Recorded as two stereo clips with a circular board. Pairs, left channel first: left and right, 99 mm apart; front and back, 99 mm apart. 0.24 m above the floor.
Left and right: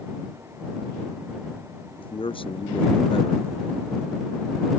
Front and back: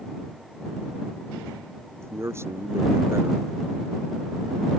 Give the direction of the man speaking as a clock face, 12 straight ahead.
8 o'clock.